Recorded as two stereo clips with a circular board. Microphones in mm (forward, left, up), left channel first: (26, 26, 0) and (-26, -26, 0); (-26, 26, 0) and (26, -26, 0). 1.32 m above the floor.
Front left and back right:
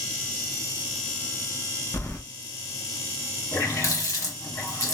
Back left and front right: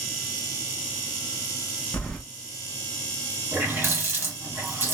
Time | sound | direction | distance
1.9 | keys jangling | 75° left | 0.6 m
3.5 | a running tap | 10° left | 1.3 m